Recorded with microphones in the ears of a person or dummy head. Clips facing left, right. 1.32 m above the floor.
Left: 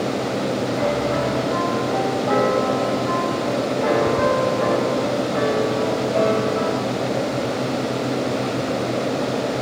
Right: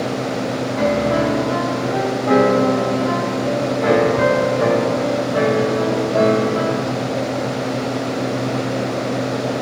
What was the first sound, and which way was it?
A piano, 50° right (ahead or behind).